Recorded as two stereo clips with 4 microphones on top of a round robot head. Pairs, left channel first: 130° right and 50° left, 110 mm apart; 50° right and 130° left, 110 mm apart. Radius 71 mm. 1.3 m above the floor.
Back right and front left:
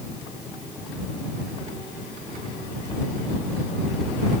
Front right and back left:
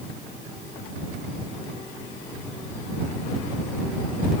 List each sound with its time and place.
Only background noise.